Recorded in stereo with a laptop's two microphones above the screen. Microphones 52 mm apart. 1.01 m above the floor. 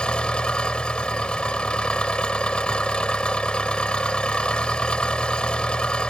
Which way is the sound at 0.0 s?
20° left (ahead or behind).